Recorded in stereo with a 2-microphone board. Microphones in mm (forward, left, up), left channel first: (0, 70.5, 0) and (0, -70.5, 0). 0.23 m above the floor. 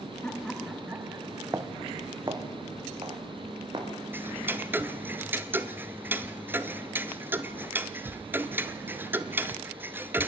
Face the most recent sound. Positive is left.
turn(degrees=-15)  # may be behind; listen again after turning